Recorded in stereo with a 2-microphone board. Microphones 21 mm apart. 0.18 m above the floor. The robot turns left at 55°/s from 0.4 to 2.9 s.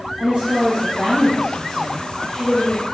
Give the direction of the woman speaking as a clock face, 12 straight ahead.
4 o'clock.